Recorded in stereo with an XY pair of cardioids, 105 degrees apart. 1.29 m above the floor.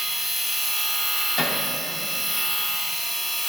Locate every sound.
0.0 s a machine running: 10° left, 1.7 m
1.4 s hammering: 40° left, 1.9 m